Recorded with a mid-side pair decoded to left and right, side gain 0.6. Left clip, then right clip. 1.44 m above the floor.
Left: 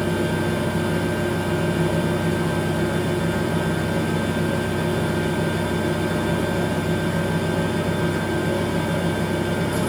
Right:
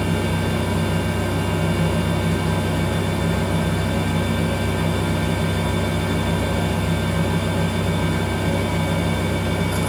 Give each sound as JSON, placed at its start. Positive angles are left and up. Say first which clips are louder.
{"t": 0.0, "sound": "a fan", "louder": "left 1 dB", "azimuth_deg": -40, "distance_m": 1.2}